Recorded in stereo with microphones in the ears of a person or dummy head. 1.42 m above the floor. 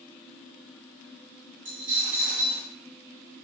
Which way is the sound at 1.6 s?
45° right (ahead or behind).